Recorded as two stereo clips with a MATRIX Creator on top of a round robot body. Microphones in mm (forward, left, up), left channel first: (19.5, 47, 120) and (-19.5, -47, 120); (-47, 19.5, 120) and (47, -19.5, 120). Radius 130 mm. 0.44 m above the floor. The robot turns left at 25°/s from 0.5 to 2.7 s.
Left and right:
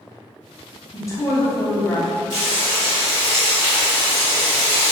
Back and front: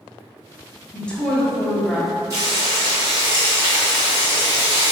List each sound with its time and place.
0.9 s a woman speaking: 90° left, 0.9 m; by 2.1 s 60° left, 0.9 m
2.3 s frying: 60° right, 1.7 m; by 4.9 s 70° right, 1.7 m